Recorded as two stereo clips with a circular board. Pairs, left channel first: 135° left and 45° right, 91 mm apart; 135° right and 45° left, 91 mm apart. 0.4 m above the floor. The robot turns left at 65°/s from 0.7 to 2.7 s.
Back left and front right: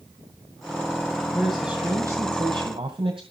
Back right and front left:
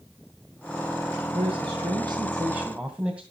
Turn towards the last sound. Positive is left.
turn(degrees=-30)